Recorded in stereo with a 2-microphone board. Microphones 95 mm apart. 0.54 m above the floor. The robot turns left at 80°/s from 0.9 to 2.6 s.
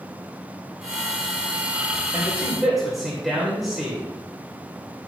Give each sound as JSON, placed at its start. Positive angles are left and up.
{"t": 2.1, "sound": "a man speaking", "azimuth_deg": -140, "distance_m": 2.5}